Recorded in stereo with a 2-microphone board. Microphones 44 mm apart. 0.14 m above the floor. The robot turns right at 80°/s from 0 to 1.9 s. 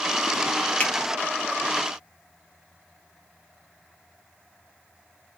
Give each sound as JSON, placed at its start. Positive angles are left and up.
{"t": 0.8, "sound": "a finger snap", "side_deg": 25, "distance_m": 1.3}